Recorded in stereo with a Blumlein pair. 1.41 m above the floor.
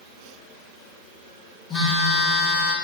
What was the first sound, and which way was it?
A phone buzzing, 10° left.